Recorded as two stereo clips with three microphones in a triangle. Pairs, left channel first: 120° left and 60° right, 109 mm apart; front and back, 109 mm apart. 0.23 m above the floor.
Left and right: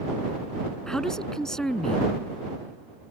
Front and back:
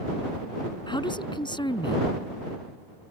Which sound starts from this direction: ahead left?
A man speaking, at 0.9 s.